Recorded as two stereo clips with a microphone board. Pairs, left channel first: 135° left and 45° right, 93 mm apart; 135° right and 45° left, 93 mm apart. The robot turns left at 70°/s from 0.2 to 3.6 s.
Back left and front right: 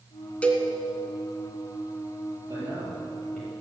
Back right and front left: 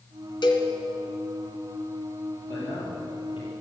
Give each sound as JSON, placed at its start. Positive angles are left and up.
{"t": 0.4, "sound": "a cowbell", "azimuth_deg": -150, "distance_m": 1.8}
{"t": 2.5, "sound": "a man speaking", "azimuth_deg": -70, "distance_m": 5.5}